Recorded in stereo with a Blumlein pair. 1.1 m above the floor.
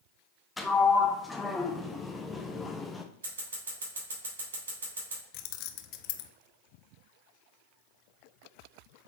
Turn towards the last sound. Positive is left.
turn(degrees=45)